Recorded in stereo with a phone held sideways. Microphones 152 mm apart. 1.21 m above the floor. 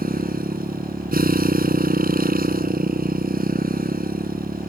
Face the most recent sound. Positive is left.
turn(degrees=-75)  # may be behind; listen again after turning